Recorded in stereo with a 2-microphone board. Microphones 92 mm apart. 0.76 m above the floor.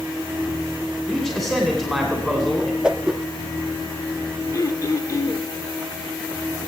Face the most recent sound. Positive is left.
turn(degrees=40)  # may be behind; listen again after turning